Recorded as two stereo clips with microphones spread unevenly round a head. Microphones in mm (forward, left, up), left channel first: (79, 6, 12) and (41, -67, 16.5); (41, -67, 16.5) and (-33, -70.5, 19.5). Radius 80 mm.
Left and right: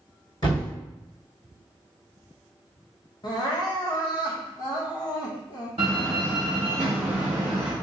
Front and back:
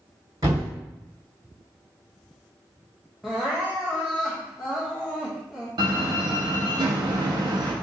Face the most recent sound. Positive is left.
turn(degrees=-170)